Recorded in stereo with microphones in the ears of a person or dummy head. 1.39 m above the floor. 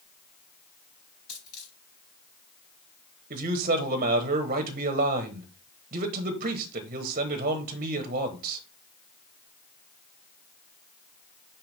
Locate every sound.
1.3 s a dropped coin: 60° left (ahead or behind), 4 m
3.3 s a man speaking: 45° right (ahead or behind), 1.0 m